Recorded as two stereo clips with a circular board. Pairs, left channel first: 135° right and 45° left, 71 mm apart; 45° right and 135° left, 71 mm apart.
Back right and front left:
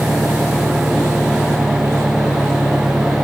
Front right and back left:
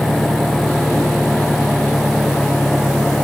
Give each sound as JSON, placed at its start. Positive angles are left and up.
{"t": 0.0, "sound": "an engine running", "azimuth_deg": -160}